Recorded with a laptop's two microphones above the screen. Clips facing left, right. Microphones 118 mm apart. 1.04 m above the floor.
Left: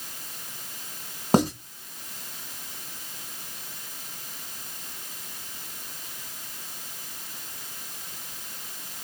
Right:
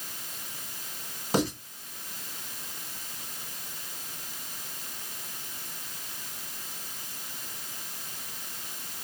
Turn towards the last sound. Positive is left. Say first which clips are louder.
# left 6 dB
turn(degrees=45)  # may be behind; listen again after turning